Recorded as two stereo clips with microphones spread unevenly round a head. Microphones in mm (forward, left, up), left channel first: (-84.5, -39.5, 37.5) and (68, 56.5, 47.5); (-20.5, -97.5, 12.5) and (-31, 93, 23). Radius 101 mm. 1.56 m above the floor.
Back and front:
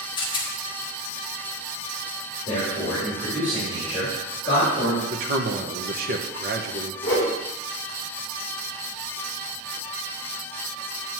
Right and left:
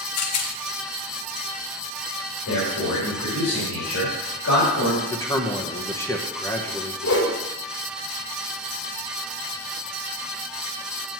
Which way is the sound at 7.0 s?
75° right.